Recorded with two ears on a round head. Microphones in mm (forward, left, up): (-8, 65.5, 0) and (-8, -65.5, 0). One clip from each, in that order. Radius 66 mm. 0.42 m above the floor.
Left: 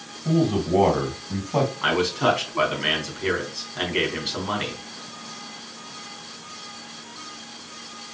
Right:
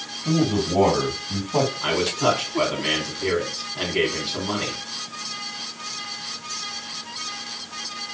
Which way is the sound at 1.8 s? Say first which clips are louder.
Even; 65° left (ahead or behind).